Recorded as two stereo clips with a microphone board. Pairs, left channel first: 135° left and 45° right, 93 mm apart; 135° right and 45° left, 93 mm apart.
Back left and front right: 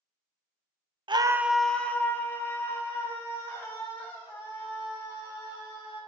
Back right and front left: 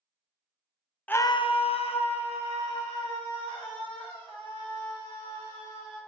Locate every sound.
1.1 s a scream: 65° right, 0.5 m; by 6.0 s 170° right, 6.5 m